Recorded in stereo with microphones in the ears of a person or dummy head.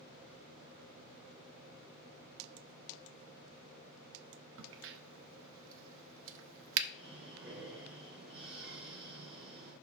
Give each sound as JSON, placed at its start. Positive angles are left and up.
{"t": 4.6, "sound": "a crack", "side_deg": -70, "distance_m": 0.7}
{"t": 6.9, "sound": "breathing", "side_deg": -5, "distance_m": 3.5}